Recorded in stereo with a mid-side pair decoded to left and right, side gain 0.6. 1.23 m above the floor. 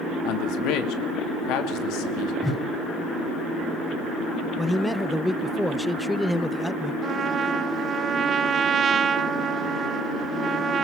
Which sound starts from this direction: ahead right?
A trumpet, at 7.0 s.